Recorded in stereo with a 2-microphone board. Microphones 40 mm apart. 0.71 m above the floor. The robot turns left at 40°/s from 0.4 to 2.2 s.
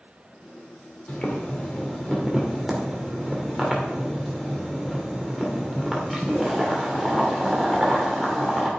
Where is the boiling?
45° left, 2 m; by 8.7 s straight ahead, 2 m.